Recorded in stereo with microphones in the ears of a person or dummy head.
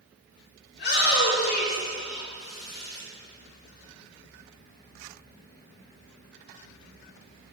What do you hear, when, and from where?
0.7 s a shout: 60° left (ahead or behind), 3 m; by 3.0 s 40° left (ahead or behind), 5 m